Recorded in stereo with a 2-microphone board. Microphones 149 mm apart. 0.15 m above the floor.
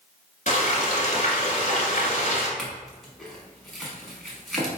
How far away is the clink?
About 1.1 m.